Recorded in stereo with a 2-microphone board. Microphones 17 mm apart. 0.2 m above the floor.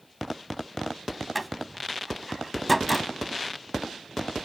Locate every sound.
1.4 s a door slam: centre (ahead or behind), 0.7 m